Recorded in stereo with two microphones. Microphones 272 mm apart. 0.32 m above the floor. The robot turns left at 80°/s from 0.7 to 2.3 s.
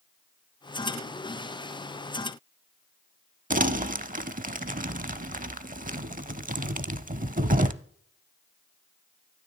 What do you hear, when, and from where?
3.5 s crumpling: 35° right (ahead or behind), 0.5 m